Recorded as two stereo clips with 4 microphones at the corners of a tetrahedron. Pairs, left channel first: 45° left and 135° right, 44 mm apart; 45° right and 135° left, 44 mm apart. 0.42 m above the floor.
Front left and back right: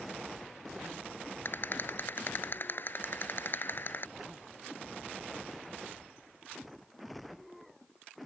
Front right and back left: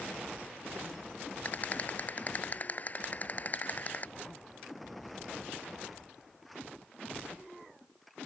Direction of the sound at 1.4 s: 5° left.